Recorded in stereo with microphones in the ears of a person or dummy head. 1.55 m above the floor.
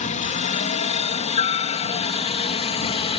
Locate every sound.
0.0 s a helicopter: 40° left (ahead or behind); by 3.2 s 35° left (ahead or behind)